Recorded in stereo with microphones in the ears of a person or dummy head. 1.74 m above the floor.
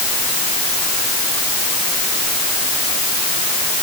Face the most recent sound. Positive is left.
No sound to turn to.